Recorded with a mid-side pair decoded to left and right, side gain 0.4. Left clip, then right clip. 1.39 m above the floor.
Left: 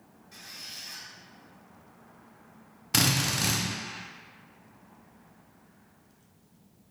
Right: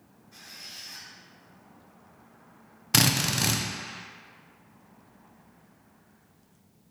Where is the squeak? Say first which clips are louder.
Left 1 dB; 70° left, 1.4 m.